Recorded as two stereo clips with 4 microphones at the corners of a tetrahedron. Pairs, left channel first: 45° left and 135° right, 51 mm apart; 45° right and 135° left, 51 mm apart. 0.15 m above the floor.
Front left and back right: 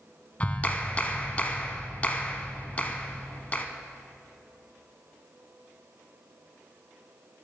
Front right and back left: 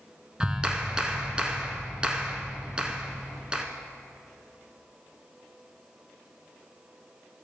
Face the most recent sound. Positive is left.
turn(degrees=80)